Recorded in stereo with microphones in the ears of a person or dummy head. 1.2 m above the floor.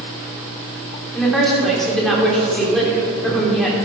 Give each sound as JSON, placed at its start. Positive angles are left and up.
{"t": 1.1, "sound": "a woman speaking", "side_deg": 0, "distance_m": 3.0}